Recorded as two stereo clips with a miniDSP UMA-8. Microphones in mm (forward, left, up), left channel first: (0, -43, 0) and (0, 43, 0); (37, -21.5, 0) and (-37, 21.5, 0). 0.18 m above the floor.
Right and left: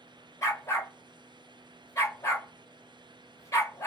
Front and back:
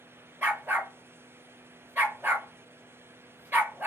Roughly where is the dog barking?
Behind right.